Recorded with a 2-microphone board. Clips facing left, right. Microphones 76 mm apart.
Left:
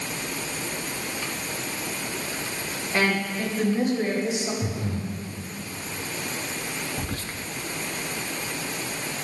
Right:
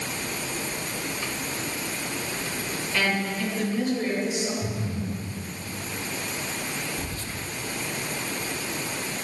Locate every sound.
2.9 s a woman speaking: 30° left (ahead or behind), 3.5 m; by 4.5 s 25° left (ahead or behind), 4.5 m
4.6 s breathing: 85° left, 2.5 m
7.0 s whispering: 65° left (ahead or behind), 1.1 m